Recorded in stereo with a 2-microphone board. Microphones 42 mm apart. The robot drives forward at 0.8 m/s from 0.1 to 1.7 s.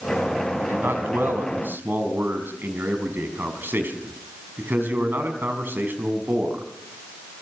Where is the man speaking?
65° right (ahead or behind), 4.5 m; by 6.6 s 60° right (ahead or behind), 5 m.